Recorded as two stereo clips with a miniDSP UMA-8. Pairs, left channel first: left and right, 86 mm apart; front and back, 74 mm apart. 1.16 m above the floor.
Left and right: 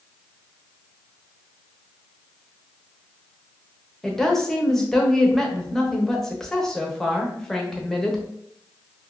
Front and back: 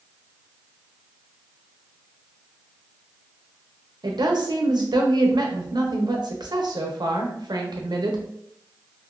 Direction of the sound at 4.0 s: 175° left.